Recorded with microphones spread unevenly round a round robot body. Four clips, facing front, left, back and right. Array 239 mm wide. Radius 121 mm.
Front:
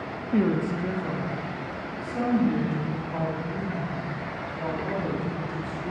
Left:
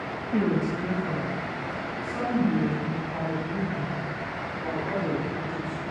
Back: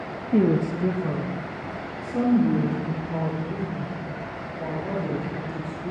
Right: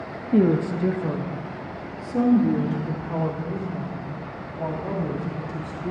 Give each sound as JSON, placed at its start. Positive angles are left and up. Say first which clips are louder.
{"t": 0.3, "sound": "a woman speaking", "louder": "right 6 dB, back 3 dB", "azimuth_deg": -115, "distance_m": 0.8}